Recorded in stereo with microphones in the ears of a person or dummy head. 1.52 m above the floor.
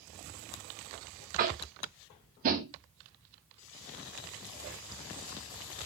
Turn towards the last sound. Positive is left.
turn(degrees=-45)  # may be behind; listen again after turning